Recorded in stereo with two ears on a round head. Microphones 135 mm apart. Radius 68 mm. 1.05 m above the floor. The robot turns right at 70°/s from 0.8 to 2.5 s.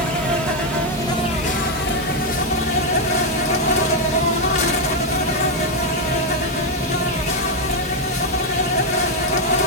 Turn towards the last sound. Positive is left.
turn(degrees=125)